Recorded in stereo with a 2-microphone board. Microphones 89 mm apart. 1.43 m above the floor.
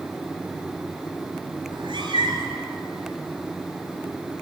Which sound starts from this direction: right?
A cat meowing, at 1.7 s.